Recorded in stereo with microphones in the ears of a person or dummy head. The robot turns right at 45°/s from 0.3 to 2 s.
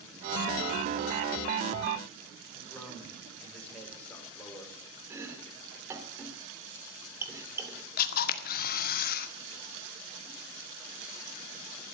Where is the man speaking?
10° left (ahead or behind), 5.5 m.